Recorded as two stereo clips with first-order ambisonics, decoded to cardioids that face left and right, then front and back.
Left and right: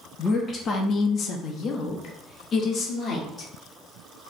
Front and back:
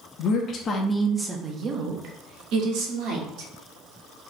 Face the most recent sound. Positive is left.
turn(degrees=155)